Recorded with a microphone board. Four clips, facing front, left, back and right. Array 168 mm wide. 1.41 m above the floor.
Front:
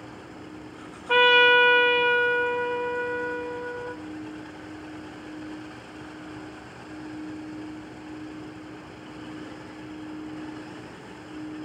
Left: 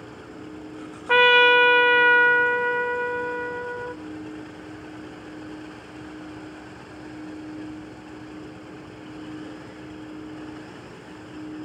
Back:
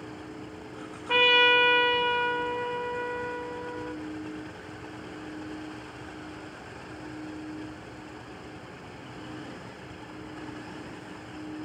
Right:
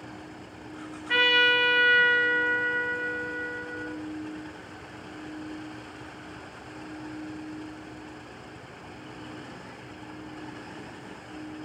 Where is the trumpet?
85° left, 0.7 m.